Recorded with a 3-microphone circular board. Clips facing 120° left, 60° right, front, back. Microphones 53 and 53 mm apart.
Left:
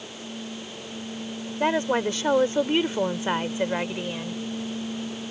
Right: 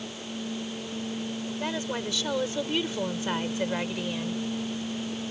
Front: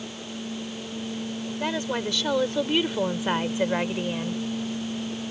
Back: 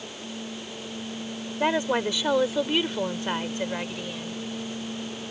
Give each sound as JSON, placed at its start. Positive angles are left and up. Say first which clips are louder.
{"t": 1.6, "sound": "a woman speaking", "louder": "left 11 dB, back 5 dB", "azimuth_deg": 130}